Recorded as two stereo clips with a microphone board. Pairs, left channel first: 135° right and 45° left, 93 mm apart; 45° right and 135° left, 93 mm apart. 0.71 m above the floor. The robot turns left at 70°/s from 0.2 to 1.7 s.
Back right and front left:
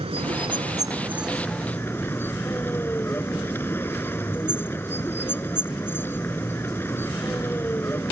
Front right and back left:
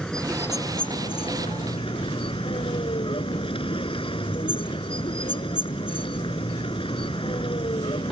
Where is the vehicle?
35° left; by 8.1 s 70° right.